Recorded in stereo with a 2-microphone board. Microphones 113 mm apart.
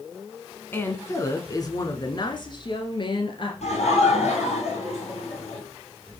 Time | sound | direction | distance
0.7 | a woman speaking | 20° left (ahead or behind) | 1.1 m
3.6 | laughter | 70° left (ahead or behind) | 4.5 m